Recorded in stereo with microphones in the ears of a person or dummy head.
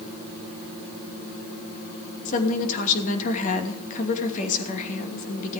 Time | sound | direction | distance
2.2 | a woman speaking | 40° left (ahead or behind) | 2.5 m